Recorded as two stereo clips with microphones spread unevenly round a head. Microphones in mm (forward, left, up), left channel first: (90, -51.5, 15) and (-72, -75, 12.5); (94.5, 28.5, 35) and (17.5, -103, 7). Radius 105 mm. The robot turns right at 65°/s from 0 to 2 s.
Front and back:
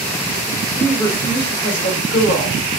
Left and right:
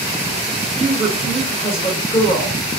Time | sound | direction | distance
0.8 | a woman speaking | 80° right | 1.6 m